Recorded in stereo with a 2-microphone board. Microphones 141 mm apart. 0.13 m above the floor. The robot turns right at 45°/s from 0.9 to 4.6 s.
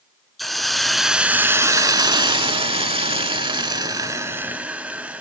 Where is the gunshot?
I don't hear a gunshot.